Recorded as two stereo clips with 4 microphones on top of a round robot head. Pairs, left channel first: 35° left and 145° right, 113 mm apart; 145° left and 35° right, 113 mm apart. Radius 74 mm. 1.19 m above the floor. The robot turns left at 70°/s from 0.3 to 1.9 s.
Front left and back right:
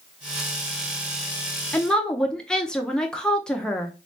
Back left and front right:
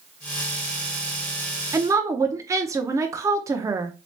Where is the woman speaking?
30° right, 0.6 m; by 3.9 s 40° right, 0.6 m.